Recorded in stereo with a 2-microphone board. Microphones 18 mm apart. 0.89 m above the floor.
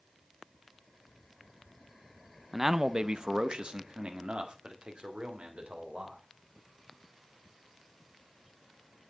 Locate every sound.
2.5 s a man speaking: 10° right (ahead or behind), 0.6 m; by 6.2 s 75° right (ahead or behind), 4 m